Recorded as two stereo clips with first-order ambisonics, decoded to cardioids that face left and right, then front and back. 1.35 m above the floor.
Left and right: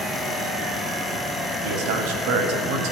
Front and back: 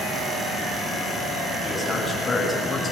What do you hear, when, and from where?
1.6 s a man speaking: 85° right, 8 m; by 2.9 s 75° right, 6.5 m